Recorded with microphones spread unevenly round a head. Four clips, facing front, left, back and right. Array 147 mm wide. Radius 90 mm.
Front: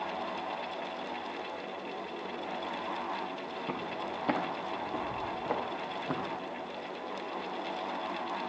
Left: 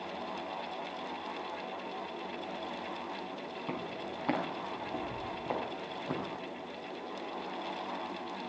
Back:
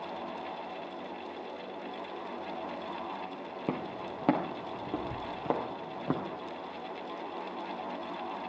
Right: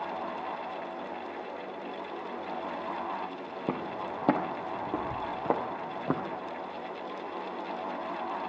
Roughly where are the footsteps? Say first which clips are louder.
Right 7 dB, back 2 dB; behind right.